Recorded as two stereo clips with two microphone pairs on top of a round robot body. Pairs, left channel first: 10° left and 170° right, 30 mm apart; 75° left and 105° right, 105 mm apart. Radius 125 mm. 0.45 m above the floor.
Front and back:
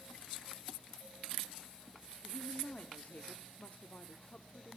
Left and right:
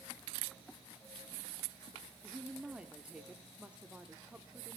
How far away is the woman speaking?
About 1.2 m.